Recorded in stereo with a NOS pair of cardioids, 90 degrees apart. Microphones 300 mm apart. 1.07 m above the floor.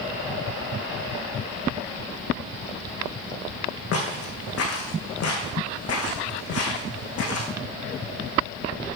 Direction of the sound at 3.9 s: 55° left.